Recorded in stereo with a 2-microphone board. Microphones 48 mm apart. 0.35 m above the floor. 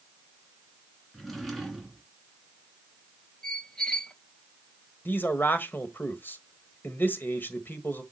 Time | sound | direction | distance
1.1 | a drawer | 5° left (ahead or behind) | 2.5 m
3.4 | a squeak | 20° left (ahead or behind) | 1.1 m
5.0 | a man speaking | 45° left (ahead or behind) | 1.5 m